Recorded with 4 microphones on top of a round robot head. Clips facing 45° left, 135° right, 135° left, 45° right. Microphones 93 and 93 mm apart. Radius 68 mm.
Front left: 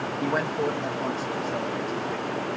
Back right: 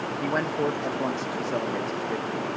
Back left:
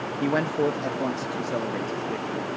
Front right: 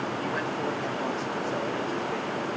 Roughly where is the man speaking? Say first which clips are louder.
Even, back left 11 dB; behind left.